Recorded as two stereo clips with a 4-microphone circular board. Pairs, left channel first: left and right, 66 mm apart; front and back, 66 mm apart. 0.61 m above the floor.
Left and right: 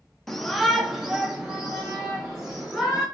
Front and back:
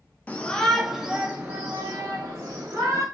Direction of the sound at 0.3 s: 10° left.